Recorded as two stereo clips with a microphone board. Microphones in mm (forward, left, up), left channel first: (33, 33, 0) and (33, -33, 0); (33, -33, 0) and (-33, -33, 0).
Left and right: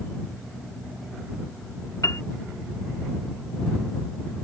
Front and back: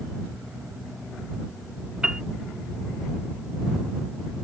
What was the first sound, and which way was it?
A piano, 105° left.